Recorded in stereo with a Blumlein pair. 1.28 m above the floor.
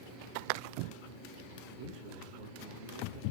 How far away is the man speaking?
About 2.5 m.